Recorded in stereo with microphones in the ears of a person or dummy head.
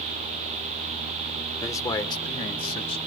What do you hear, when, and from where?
1.6 s a man speaking: 15° left (ahead or behind), 1.5 m; by 3.0 s 30° left (ahead or behind), 3 m